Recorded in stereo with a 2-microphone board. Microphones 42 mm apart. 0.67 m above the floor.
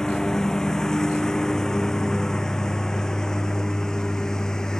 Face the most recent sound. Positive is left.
turn(degrees=10)  # may be behind; listen again after turning